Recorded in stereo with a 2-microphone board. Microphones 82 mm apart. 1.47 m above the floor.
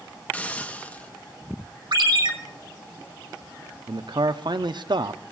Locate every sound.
0.3 s a hiss: 20° left (ahead or behind), 0.7 m
1.9 s a ringtone: 65° right (ahead or behind), 1.2 m
3.9 s a man speaking: 65° right (ahead or behind), 0.6 m